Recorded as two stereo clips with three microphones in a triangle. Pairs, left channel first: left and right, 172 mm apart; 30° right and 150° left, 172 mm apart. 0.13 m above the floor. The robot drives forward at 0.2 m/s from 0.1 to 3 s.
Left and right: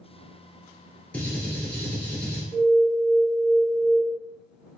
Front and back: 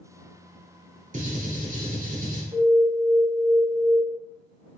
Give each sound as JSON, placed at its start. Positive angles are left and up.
{"t": 1.1, "sound": "a gunshot", "azimuth_deg": 170, "distance_m": 1.4}
{"t": 2.5, "sound": "an alarm", "azimuth_deg": 145, "distance_m": 1.7}